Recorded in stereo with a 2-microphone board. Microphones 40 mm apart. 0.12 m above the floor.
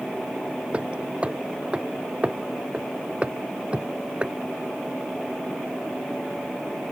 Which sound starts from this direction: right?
Hammering, at 0.7 s.